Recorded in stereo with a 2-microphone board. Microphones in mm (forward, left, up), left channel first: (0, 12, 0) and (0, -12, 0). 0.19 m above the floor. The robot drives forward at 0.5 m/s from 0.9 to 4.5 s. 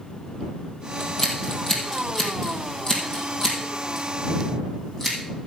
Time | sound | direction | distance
1.0 | scissors | 20° left (ahead or behind) | 3.5 m